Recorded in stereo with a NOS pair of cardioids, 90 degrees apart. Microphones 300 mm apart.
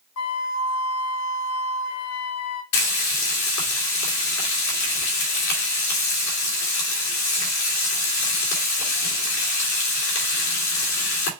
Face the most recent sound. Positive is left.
turn(degrees=70)